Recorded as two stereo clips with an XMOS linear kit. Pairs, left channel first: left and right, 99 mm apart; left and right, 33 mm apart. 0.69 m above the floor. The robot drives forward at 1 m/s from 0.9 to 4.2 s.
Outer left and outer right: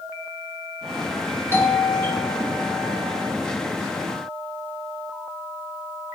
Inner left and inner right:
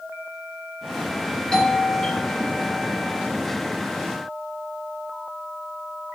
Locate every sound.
1.5 s a doorbell: 25° left (ahead or behind), 1.4 m; by 3.3 s 15° left (ahead or behind), 2 m